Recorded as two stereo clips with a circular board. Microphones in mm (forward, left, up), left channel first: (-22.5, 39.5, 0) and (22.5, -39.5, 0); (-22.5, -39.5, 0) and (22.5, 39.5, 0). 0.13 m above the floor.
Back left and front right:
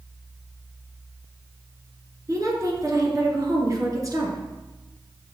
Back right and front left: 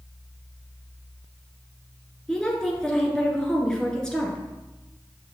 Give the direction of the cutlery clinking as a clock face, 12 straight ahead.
No cutlery clinking in this recording.